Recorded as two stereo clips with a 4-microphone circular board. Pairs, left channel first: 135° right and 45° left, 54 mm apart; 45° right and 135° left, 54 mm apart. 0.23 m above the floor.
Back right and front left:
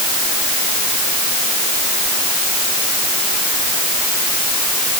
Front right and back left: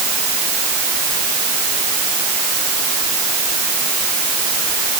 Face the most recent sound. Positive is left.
No sound to turn to.